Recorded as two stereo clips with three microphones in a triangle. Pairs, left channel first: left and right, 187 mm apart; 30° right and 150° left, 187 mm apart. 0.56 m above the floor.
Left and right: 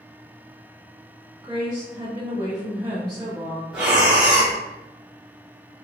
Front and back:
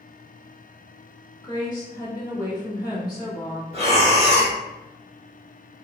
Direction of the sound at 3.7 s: 170° right.